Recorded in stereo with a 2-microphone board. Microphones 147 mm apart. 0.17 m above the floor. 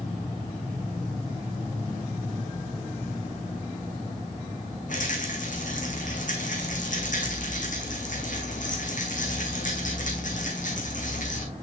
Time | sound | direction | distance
4.9 | a rattle | 60° left (ahead or behind) | 2.5 m